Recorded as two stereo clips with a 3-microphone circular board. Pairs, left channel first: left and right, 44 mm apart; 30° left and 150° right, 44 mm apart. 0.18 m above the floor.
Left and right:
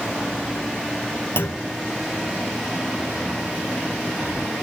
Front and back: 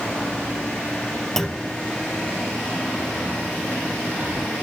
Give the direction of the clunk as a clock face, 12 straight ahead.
8 o'clock.